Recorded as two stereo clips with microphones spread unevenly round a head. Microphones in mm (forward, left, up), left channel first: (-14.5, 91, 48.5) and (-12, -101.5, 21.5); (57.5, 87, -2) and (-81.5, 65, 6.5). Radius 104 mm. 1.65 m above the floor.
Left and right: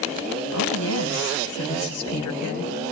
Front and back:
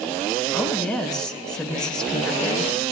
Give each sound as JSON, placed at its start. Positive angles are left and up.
{"t": 0.5, "sound": "a woman speaking", "azimuth_deg": 95, "distance_m": 6.5}